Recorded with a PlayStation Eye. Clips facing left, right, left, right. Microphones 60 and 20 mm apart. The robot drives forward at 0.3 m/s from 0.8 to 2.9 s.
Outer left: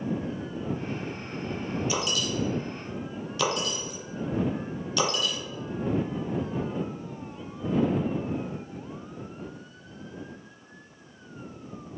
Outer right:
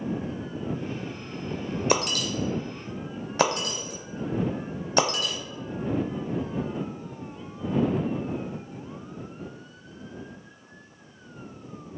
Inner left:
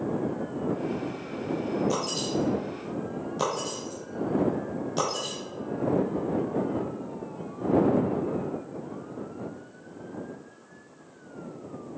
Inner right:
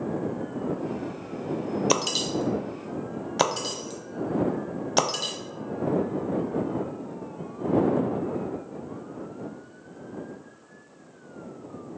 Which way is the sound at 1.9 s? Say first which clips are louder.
Outer right 3 dB, inner right 3 dB; 65° right (ahead or behind).